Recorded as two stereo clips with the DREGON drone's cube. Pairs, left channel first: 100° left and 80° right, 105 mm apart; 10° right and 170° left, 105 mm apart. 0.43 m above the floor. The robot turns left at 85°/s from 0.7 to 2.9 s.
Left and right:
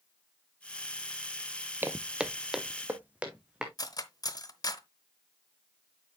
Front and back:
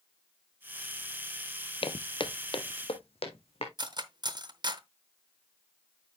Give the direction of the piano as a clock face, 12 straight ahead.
No piano in this recording.